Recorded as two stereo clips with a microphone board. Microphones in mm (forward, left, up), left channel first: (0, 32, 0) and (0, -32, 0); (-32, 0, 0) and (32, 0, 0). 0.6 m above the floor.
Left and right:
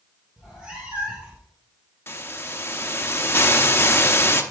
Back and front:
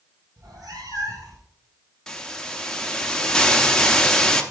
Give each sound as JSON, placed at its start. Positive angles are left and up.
{"t": 0.4, "sound": "a cat meowing", "azimuth_deg": -10, "distance_m": 2.5}
{"t": 2.1, "sound": "a hiss", "azimuth_deg": 105, "distance_m": 0.7}